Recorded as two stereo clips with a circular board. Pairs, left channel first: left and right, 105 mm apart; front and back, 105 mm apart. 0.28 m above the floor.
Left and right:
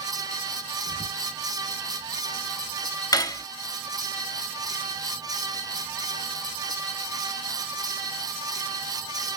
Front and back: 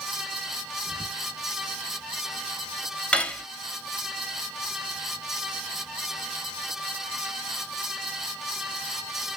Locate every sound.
0.9 s whispering: 125° left, 2.5 m
3.1 s cutlery clinking: 75° left, 0.5 m